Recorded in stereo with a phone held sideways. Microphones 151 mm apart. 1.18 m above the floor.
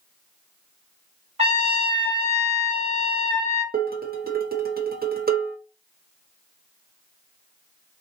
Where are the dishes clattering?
80° right, 0.7 m.